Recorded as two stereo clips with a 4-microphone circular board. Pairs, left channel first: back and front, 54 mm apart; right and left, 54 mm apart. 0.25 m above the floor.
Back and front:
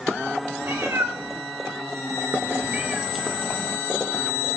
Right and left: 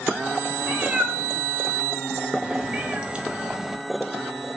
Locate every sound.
0.6 s a cat meowing: 25° left, 1.5 m; by 4.6 s 175° right, 0.8 m